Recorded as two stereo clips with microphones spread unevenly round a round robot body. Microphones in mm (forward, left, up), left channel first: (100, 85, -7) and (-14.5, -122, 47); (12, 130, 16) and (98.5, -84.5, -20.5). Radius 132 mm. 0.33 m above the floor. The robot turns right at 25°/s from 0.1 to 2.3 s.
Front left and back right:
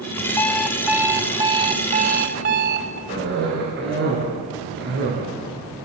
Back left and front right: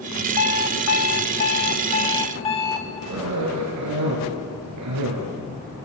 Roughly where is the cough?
Right.